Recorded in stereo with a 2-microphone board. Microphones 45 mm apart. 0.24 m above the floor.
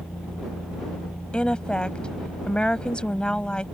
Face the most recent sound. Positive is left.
turn(degrees=25)  # may be behind; listen again after turning